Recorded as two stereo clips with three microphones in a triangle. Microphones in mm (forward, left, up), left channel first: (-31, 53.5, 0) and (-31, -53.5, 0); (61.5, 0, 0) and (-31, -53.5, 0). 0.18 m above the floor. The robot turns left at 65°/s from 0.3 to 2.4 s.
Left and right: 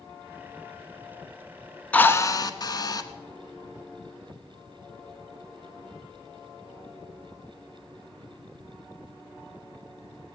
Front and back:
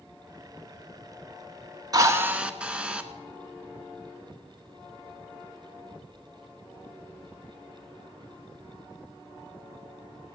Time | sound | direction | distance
1.9 | a drill | 165° left | 1.1 m